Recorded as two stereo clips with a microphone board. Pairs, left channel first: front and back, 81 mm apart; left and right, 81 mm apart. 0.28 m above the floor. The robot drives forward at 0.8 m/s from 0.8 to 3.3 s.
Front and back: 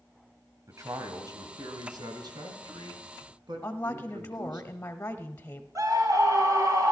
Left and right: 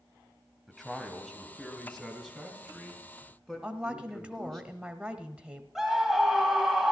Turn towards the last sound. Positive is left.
turn(degrees=-175)